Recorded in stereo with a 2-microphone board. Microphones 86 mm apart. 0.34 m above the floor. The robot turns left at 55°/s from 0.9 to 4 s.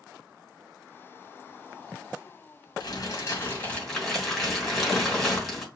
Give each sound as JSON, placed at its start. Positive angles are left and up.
{"t": 2.8, "sound": "crumpling", "azimuth_deg": 70, "distance_m": 2.5}